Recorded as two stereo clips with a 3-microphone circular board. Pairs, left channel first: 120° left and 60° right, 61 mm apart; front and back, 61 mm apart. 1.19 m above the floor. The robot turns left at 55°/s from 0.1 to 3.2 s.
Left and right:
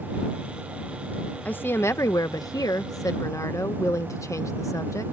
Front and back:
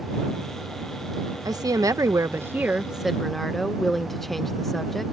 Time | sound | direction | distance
1.4 | a woman speaking | 175° right | ?